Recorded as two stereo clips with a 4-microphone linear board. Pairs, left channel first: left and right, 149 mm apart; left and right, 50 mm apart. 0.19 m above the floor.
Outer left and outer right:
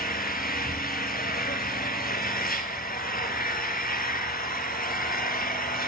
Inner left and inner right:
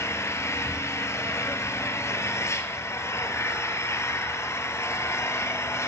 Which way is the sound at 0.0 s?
75° left (ahead or behind).